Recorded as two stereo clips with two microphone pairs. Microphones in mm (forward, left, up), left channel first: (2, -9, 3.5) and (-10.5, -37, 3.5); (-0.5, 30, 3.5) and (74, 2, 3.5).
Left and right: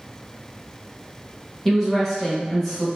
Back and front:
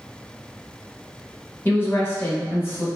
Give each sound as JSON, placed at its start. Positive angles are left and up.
{"t": 1.6, "sound": "a woman speaking", "azimuth_deg": 145, "distance_m": 0.9}